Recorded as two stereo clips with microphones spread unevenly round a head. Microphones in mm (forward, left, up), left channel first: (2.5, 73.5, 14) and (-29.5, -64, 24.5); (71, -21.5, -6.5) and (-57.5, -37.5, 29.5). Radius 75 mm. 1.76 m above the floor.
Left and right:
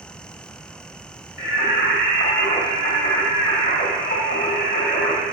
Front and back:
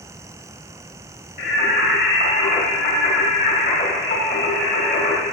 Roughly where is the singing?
Ahead left.